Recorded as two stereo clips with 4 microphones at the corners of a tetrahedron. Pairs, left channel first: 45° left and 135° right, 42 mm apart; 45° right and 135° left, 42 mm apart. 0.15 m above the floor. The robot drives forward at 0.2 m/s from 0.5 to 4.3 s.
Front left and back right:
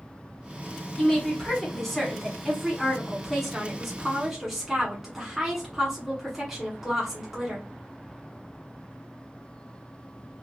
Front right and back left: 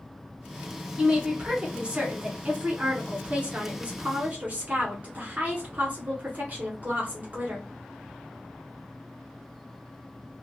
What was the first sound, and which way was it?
A woman speaking, 105° left.